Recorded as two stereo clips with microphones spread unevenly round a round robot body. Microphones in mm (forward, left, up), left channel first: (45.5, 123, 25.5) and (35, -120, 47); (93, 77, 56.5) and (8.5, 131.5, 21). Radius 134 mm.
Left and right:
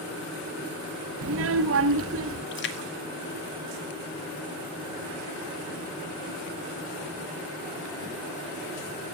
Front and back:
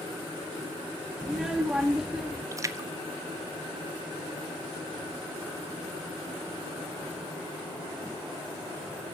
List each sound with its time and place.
1.2 s a child speaking: 130° right, 0.7 m
2.5 s a splash: 115° left, 1.3 m